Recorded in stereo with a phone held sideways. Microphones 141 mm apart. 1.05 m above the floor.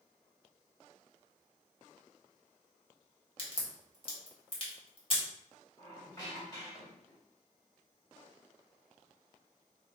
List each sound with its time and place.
3.4 s a crack: 40° left (ahead or behind), 1.6 m
5.8 s a squeak: 25° left (ahead or behind), 2.0 m